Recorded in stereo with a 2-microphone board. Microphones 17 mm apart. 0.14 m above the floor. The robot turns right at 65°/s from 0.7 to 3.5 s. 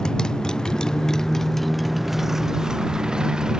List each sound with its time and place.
0.0 s a motorcycle: 105° left; by 3.6 s 75° right